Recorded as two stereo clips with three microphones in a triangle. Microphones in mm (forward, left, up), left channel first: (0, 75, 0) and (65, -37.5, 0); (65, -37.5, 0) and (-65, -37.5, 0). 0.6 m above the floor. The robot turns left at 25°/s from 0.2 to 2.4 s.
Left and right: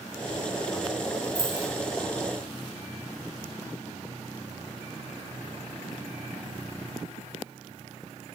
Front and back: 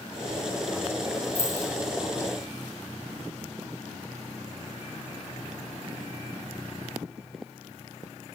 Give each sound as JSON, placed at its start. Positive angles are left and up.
{"t": 1.4, "sound": "keys jangling", "azimuth_deg": 180, "distance_m": 2.0}